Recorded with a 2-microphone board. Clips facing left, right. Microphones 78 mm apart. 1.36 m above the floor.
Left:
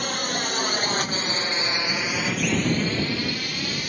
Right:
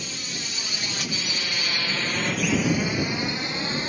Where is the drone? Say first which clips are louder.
Left 9 dB; 70° left (ahead or behind); by 3.9 s 30° right (ahead or behind).